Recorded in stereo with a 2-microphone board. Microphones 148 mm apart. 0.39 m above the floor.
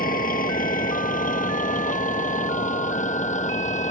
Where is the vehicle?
75° left (ahead or behind); by 3.9 s 55° left (ahead or behind).